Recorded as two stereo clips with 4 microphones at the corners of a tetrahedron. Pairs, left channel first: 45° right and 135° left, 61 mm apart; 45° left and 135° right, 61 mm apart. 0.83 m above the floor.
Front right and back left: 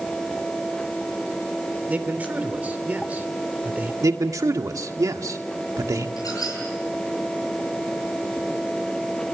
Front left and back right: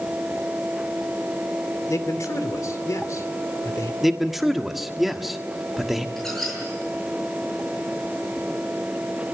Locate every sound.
1.9 s a man speaking: 75° left, 2.5 m
4.0 s a man speaking: 135° left, 1.7 m
6.2 s a squeak: 40° right, 10 m